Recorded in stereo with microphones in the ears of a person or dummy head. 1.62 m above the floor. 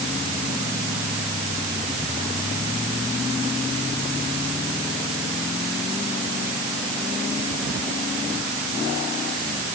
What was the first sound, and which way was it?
Only background noise.